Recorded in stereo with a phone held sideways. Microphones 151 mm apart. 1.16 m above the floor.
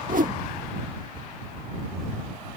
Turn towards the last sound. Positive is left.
turn(degrees=-65)  # may be behind; listen again after turning